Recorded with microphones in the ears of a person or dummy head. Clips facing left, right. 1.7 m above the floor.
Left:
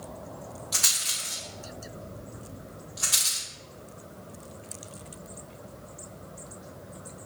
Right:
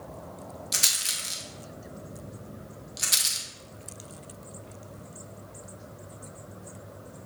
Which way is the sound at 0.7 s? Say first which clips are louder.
Even; 30° right (ahead or behind).